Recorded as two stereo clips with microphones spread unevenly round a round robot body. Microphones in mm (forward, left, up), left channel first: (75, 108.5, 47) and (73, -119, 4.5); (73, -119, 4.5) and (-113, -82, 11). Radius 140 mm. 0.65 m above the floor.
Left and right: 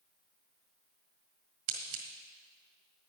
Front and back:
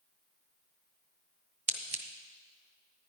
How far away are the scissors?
About 1.4 m.